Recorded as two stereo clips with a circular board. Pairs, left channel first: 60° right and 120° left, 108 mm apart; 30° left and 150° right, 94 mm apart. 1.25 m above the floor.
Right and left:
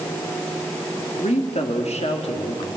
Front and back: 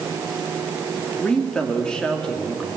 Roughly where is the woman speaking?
Ahead right.